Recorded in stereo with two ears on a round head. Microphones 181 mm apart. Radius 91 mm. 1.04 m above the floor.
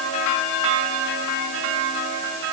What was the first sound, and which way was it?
Only background noise.